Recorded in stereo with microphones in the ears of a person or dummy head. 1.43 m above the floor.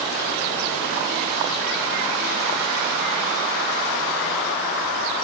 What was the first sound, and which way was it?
Only background noise.